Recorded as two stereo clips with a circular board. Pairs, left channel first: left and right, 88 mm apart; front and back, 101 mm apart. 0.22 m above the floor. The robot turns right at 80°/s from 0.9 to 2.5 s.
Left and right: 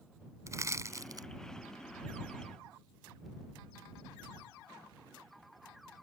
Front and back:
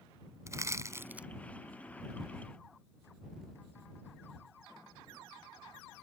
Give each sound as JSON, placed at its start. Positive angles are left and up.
{"t": 0.5, "sound": "crushing", "azimuth_deg": -130}